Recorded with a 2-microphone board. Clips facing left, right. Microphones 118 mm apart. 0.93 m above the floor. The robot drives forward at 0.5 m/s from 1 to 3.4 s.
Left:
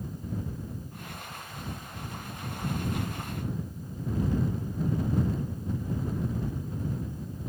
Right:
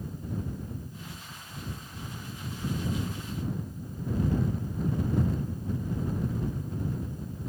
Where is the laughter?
No laughter in this recording.